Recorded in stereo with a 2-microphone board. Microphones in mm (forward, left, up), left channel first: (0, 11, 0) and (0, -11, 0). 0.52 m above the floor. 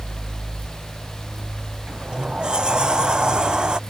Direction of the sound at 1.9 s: 40° right (ahead or behind).